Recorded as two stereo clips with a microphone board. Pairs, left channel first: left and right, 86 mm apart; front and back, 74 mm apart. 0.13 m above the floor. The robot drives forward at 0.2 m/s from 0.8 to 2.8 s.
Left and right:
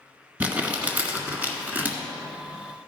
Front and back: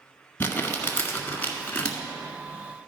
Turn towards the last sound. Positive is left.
turn(degrees=-70)